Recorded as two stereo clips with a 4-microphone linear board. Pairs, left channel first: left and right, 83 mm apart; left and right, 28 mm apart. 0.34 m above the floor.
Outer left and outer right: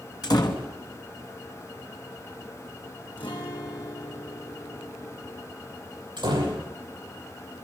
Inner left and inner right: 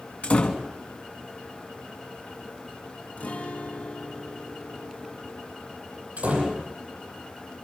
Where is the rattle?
No rattle in this recording.